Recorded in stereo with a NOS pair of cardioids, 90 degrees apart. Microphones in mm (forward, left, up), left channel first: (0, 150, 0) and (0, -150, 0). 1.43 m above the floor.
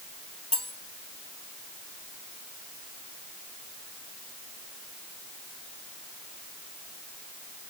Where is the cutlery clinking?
20° left, 1.9 m.